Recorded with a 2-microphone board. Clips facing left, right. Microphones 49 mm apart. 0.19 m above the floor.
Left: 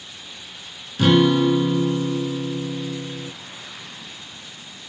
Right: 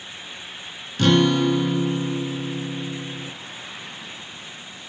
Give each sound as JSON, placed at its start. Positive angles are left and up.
{"t": 1.0, "sound": "a guitar", "side_deg": 5, "distance_m": 0.5}